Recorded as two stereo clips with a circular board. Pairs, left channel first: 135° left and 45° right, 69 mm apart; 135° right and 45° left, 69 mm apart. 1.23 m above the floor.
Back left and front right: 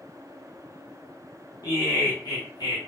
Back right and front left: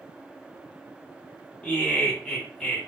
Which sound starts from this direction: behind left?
Laughter, at 1.6 s.